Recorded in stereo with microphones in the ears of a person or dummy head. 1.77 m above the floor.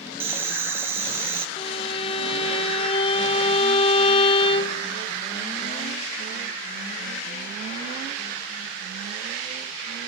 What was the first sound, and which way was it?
Boiling, 10° right (ahead or behind).